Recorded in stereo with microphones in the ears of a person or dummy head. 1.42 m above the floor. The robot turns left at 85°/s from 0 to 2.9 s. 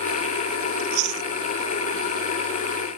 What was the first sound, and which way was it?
Chewing, 45° right (ahead or behind).